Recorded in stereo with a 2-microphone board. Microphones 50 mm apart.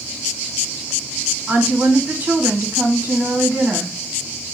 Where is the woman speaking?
45° right (ahead or behind), 1.8 m.